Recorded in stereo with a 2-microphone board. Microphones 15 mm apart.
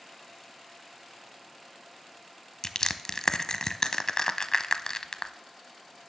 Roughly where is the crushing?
Left.